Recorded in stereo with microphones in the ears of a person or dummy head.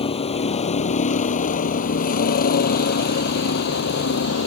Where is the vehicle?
30° left (ahead or behind); by 4.5 s 60° left (ahead or behind).